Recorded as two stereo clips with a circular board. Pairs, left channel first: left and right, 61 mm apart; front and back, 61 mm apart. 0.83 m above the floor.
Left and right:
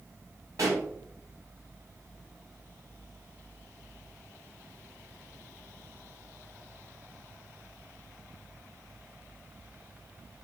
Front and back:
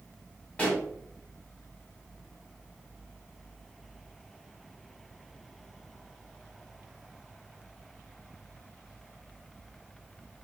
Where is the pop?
70° right, 1.3 m.